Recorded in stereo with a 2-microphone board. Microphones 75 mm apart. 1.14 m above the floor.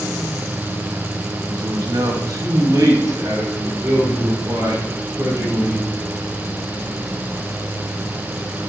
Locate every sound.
1.5 s a man speaking: 60° right (ahead or behind), 1.2 m; by 5.9 s 45° right (ahead or behind), 5.5 m